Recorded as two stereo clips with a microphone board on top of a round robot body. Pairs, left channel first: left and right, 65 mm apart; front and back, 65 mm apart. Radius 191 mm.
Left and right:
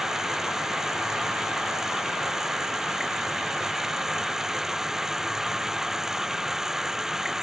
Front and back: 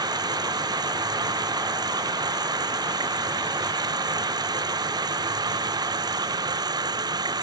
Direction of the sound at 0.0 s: 175° right.